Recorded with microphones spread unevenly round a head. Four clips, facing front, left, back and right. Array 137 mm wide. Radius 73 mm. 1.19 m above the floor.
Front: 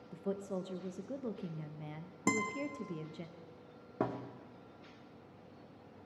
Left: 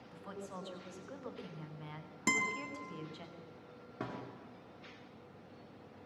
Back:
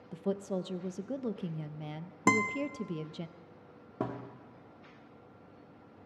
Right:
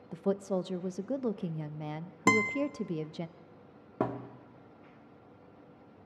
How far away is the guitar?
About 0.7 m.